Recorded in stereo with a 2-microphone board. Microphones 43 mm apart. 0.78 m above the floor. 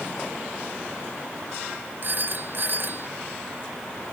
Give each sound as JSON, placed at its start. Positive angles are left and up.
{"t": 2.0, "sound": "a phone ringing", "side_deg": -50}